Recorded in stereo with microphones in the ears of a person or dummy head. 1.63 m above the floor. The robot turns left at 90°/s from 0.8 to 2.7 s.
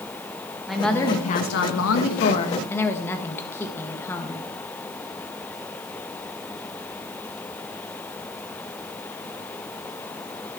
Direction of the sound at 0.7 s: 175° right.